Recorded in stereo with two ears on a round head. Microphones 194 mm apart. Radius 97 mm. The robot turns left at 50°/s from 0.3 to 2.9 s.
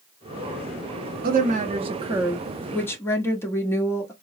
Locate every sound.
1.2 s a woman speaking: 115° right, 1.0 m; by 4.1 s 165° left, 1.0 m